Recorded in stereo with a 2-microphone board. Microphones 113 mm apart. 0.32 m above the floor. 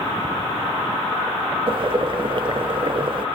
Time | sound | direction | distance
1.7 | boiling | 50° right (ahead or behind) | 1.0 m